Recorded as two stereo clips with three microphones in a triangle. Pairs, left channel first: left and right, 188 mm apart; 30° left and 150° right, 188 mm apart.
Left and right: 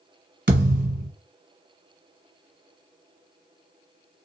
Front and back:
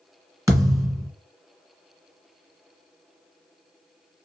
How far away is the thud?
About 1.2 m.